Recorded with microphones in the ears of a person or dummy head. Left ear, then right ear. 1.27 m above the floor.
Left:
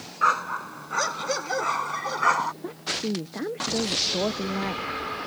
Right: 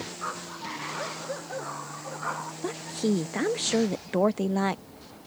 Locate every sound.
0.2 s a dog barking: 70° left (ahead or behind); by 2.5 s 75° left (ahead or behind)
2.6 s a woman speaking: 65° right (ahead or behind)